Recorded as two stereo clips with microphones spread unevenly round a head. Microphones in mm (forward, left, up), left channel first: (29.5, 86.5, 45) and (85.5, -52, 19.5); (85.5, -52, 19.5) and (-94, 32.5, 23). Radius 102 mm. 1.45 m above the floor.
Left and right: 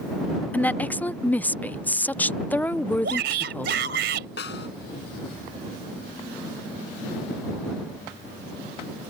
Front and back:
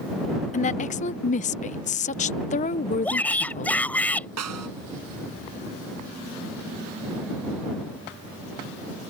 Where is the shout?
110° right.